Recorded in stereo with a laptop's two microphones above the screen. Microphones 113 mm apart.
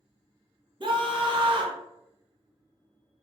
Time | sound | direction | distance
0.8 | a scream | 45° right (ahead or behind) | 0.7 m